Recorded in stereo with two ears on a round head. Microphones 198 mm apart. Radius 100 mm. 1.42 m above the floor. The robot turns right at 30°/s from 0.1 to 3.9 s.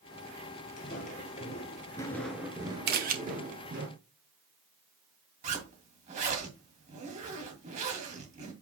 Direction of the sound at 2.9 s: 45° right (ahead or behind).